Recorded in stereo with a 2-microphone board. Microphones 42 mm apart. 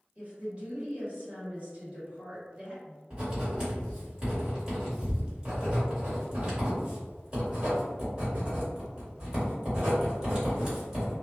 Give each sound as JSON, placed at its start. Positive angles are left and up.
{"t": 0.1, "sound": "a woman speaking", "side_deg": -30, "distance_m": 1.8}
{"t": 3.1, "sound": "writing", "side_deg": -20, "distance_m": 1.6}